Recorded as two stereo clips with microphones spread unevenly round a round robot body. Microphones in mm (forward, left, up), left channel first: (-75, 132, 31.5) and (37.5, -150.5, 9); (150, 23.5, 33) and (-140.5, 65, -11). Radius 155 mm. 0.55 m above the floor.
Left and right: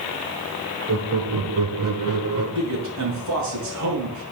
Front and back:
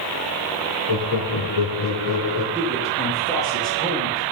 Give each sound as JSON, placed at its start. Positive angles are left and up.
{"t": 0.9, "sound": "laughter", "azimuth_deg": -30, "distance_m": 6.5}
{"t": 2.5, "sound": "a man speaking", "azimuth_deg": -100, "distance_m": 7.0}